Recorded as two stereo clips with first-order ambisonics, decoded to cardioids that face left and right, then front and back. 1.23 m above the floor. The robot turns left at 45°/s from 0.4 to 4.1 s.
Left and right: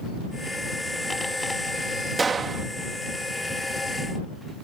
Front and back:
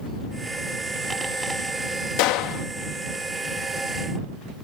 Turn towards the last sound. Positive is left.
turn(degrees=-100)